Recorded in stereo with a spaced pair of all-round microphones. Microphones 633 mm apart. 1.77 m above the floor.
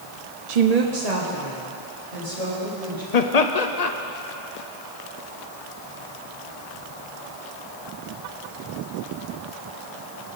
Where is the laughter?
80° left, 0.9 m.